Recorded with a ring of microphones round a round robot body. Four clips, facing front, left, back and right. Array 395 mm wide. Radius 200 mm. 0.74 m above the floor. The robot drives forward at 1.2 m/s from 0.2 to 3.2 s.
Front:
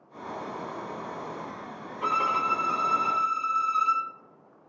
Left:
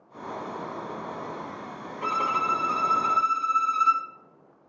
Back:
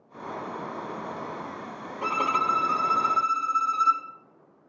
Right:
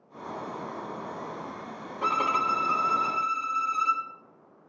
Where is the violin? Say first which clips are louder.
Even, back 1 dB; 140° right, 1.2 m; by 4.0 s 165° right, 2.5 m.